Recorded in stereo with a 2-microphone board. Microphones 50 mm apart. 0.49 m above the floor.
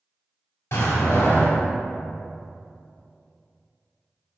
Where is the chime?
No chime in this recording.